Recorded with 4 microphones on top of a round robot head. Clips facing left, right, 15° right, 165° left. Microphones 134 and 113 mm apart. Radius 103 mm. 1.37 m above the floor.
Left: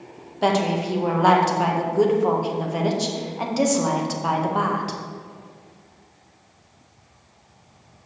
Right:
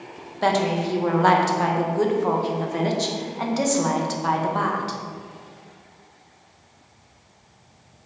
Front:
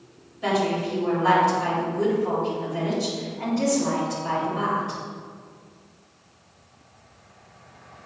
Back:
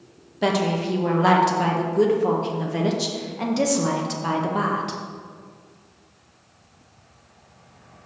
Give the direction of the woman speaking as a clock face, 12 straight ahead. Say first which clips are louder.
Even, back 2 dB; 6 o'clock.